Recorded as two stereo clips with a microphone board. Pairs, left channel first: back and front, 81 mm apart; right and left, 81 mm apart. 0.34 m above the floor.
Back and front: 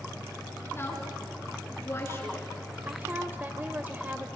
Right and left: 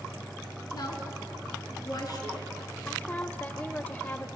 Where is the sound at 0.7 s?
125° right, 3.5 m.